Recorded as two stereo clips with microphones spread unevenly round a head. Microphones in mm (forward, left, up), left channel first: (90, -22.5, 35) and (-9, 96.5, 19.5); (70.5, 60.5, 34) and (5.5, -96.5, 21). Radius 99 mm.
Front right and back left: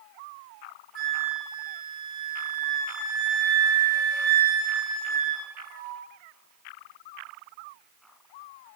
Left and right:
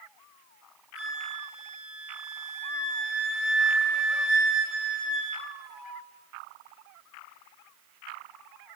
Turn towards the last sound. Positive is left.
turn(degrees=165)